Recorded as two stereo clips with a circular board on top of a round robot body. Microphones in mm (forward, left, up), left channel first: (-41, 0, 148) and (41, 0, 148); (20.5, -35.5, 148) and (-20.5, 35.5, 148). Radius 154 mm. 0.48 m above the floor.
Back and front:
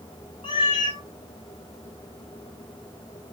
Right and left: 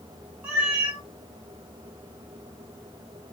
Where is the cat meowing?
165° right, 0.8 m.